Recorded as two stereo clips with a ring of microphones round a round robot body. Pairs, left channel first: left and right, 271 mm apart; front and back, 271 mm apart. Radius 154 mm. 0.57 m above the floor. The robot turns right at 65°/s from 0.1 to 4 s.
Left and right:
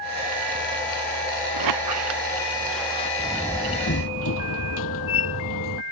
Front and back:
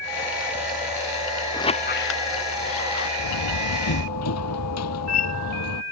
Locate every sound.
1.5 s a squeak: 80° right; by 3.1 s 20° left
3.2 s a door slam: 10° right; by 5.8 s 40° left